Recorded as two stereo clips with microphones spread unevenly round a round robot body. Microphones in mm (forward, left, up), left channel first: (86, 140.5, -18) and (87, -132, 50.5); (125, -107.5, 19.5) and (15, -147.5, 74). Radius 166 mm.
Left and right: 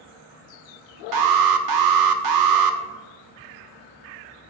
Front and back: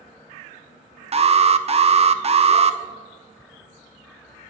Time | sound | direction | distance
1.1 | an alarm | 100° right | 0.6 m